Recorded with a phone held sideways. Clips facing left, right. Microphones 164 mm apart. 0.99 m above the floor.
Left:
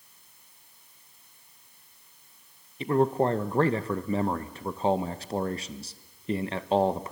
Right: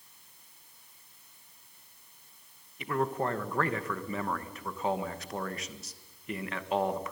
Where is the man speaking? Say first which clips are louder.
Left 7 dB; 30° left (ahead or behind), 1.1 m.